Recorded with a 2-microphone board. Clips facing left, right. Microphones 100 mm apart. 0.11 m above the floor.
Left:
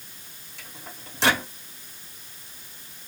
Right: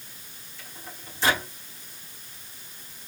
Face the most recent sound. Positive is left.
turn(degrees=75)  # may be behind; listen again after turning